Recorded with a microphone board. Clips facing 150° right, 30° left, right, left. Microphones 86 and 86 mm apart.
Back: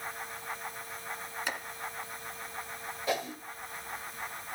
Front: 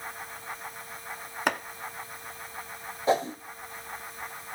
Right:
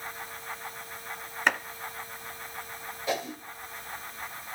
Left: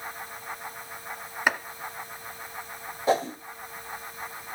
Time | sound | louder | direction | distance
1.5 | chopping | front 10 dB, left 1 dB | 5° left | 1.0 m
3.1 | a whoosh | front 8 dB, left 8 dB | 65° left | 0.9 m